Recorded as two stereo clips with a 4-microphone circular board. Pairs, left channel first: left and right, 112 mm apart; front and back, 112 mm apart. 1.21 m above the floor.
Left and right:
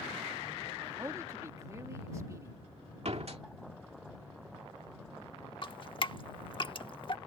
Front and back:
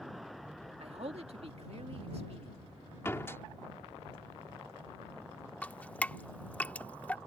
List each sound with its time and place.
0.8 s a man speaking: 155° right
3.0 s a door slam: 70° right
5.6 s dripping: 70° left